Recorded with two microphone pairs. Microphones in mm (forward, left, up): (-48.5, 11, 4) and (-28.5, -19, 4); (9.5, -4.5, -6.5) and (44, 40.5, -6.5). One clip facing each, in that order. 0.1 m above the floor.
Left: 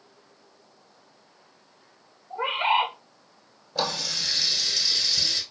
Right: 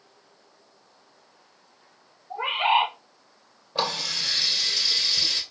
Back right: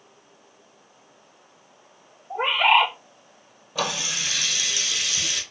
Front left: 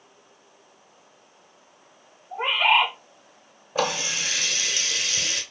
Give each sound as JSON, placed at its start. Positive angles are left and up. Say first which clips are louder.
{"t": 2.3, "sound": "a bird", "louder": "right 1 dB, back right 2 dB", "azimuth_deg": -140, "distance_m": 3.0}
{"t": 3.8, "sound": "a running tap", "louder": "right 1 dB, front left 2 dB", "azimuth_deg": 0, "distance_m": 1.6}